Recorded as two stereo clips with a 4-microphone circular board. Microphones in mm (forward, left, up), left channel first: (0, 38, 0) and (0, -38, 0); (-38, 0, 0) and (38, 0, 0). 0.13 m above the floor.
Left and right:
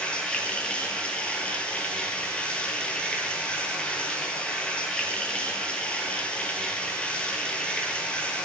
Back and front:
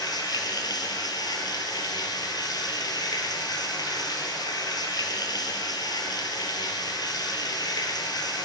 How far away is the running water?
About 1.0 m.